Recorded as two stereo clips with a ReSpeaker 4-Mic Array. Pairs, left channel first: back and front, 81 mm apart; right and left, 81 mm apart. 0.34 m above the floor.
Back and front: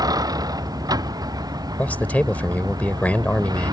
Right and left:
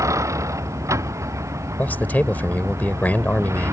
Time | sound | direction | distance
0.0 | a vehicle | 40° left | ?
1.8 | a man speaking | 130° right | ?